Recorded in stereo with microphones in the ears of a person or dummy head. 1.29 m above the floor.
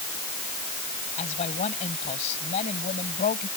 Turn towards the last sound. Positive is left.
turn(degrees=35)  # may be behind; listen again after turning